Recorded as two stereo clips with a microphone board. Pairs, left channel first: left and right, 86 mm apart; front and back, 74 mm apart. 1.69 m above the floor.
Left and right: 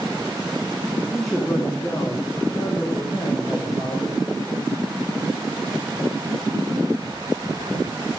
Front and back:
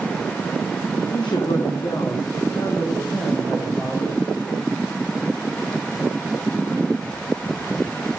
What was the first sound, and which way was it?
A man speaking, 5° right.